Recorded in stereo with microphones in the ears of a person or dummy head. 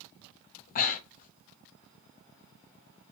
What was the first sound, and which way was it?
Breathing, 40° left (ahead or behind).